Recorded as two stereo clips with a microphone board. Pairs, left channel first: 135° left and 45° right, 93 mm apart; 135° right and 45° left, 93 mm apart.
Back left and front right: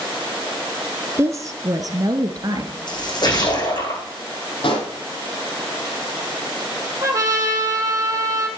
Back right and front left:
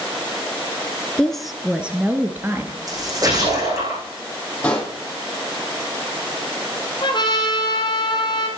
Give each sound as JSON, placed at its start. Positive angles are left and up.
{"t": 1.2, "sound": "a woman speaking", "azimuth_deg": -60, "distance_m": 1.2}
{"t": 2.9, "sound": "a splash", "azimuth_deg": 95, "distance_m": 7.5}
{"t": 4.6, "sound": "a pop", "azimuth_deg": 150, "distance_m": 5.0}
{"t": 7.0, "sound": "a trumpet", "azimuth_deg": -100, "distance_m": 2.5}